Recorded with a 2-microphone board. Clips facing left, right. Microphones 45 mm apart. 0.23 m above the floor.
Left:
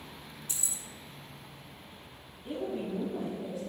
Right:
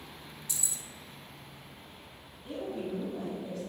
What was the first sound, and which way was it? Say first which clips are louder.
Keys jangling: right 1 dB; 40° left (ahead or behind).